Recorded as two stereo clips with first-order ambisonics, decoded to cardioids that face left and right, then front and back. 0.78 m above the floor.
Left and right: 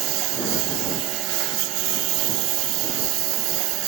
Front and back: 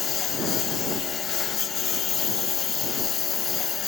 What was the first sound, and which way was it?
A lawn mower, 60° right.